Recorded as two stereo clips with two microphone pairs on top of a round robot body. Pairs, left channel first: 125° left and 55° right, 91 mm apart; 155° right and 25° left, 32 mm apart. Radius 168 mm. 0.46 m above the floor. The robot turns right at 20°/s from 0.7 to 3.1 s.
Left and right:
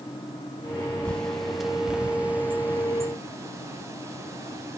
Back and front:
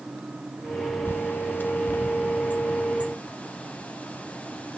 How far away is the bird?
About 0.5 m.